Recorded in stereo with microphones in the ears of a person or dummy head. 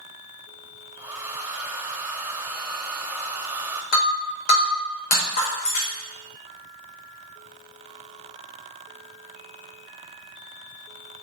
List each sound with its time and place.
1.0 s a hair dryer: 10° right (ahead or behind), 0.9 m
3.9 s breaking glass: 50° left (ahead or behind), 3.5 m